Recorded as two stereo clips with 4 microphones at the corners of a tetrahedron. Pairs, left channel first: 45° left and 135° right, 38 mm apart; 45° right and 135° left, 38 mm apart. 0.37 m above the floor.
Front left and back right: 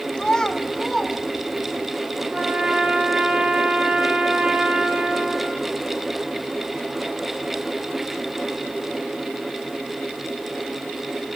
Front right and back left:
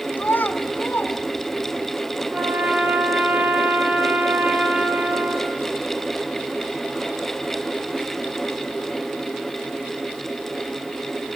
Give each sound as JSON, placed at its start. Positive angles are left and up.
{"t": 0.2, "sound": "a child speaking", "azimuth_deg": -20, "distance_m": 1.9}
{"t": 2.3, "sound": "a trumpet", "azimuth_deg": 170, "distance_m": 3.5}